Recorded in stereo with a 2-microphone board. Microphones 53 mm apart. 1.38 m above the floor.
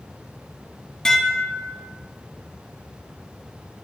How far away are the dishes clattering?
About 1.1 m.